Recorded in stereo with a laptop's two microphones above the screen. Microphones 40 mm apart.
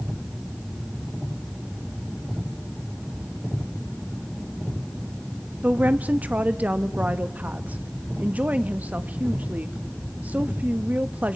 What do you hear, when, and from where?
5.6 s a woman speaking: 40° right (ahead or behind), 1.3 m